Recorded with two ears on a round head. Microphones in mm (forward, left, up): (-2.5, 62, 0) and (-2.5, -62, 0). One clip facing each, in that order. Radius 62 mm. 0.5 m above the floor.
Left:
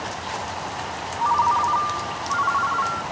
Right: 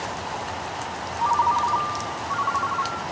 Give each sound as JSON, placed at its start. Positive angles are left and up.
{"t": 1.2, "sound": "a ringtone", "side_deg": -10}